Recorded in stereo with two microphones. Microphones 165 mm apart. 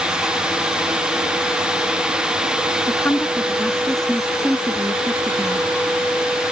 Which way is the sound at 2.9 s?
15° left (ahead or behind).